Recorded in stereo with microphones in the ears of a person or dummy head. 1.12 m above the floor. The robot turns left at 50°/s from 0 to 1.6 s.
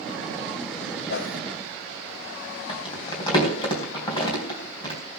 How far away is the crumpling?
About 3.5 m.